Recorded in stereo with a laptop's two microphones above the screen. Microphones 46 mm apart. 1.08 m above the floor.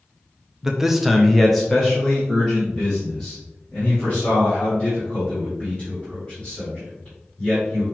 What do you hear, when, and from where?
0.6 s a man speaking: 10° right (ahead or behind), 0.5 m; by 7.8 s 15° left (ahead or behind), 3.5 m